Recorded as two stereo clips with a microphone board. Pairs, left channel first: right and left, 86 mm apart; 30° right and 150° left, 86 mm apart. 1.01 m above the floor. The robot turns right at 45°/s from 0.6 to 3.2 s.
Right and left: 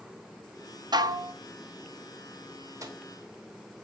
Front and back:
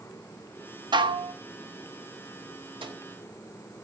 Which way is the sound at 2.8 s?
140° left.